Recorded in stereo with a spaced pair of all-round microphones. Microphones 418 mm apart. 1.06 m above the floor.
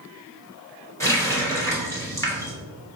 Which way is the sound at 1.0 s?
5° left (ahead or behind).